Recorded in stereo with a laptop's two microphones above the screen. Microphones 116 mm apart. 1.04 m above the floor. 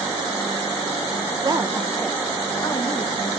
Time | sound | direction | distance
1.4 | a woman speaking | 35° right (ahead or behind) | 0.8 m